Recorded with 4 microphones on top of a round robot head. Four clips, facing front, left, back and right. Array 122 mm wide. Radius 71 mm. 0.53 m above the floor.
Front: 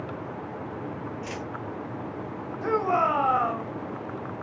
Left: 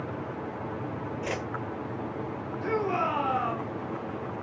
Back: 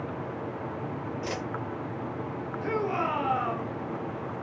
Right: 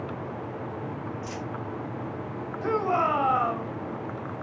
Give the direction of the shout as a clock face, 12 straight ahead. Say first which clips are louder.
Right 3 dB, front 6 dB; 1 o'clock.